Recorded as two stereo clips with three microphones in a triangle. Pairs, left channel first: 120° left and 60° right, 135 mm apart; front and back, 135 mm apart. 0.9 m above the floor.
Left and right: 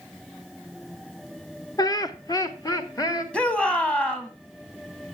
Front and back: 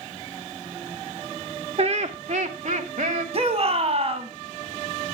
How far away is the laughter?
About 0.7 m.